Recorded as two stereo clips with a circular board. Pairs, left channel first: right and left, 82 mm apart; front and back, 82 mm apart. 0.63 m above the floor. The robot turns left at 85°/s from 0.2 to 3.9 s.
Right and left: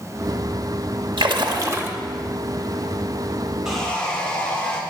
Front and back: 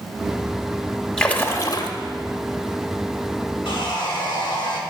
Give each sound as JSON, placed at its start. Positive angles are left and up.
{"t": 1.2, "sound": "a splash", "azimuth_deg": 85, "distance_m": 0.7}
{"t": 3.6, "sound": "sawing", "azimuth_deg": 5, "distance_m": 1.0}